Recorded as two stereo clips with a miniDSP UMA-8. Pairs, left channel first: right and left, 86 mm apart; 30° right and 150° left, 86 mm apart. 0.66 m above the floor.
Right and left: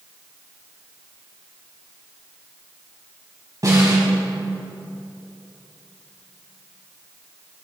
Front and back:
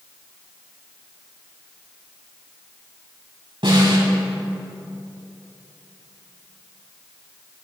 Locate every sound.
3.6 s a snare drum: 135° left, 3.5 m